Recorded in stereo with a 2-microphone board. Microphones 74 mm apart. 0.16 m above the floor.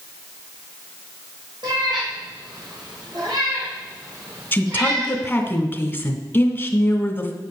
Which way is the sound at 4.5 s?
25° left (ahead or behind).